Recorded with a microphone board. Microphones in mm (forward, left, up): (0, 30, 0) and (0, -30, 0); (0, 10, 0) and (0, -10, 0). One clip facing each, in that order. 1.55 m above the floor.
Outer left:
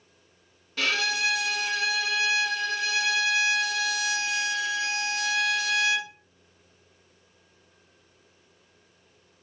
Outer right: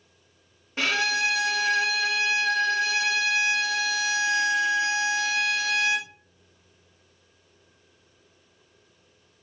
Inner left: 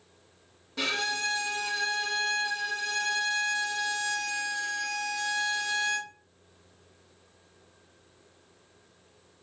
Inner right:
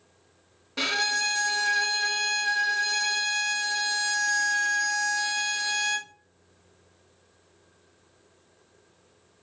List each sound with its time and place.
0.8 s a violin: 25° right (ahead or behind), 0.8 m